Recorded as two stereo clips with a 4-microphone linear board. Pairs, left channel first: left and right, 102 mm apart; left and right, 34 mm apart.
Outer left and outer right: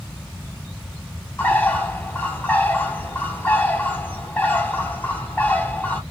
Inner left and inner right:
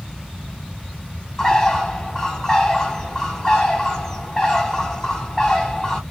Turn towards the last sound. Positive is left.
turn(degrees=20)  # may be behind; listen again after turning